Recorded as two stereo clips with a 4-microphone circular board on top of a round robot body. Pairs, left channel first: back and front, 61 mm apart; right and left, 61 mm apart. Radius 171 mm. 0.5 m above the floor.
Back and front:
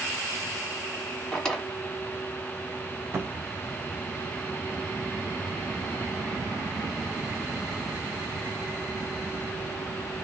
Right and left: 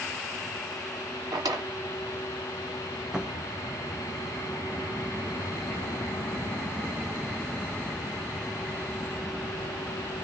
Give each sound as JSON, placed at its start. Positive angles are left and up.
{"t": 1.3, "sound": "a drawer", "azimuth_deg": 100, "distance_m": 1.2}
{"t": 3.1, "sound": "a cupboard door", "azimuth_deg": 15, "distance_m": 1.4}